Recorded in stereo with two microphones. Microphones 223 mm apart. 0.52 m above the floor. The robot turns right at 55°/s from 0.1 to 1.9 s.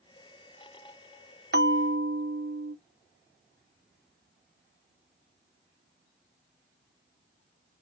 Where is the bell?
45° right (ahead or behind), 0.7 m; by 2.8 s 65° right (ahead or behind), 0.7 m.